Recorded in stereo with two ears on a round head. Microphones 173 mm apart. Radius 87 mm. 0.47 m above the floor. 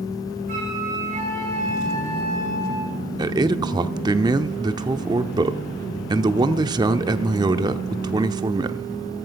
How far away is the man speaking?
About 0.7 m.